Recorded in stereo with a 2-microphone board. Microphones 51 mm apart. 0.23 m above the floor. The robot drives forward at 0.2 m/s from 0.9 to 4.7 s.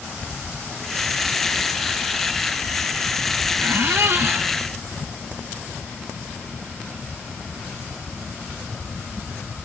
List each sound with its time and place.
3.6 s a squeak: 55° right (ahead or behind), 0.8 m; by 4.5 s 50° right (ahead or behind), 0.9 m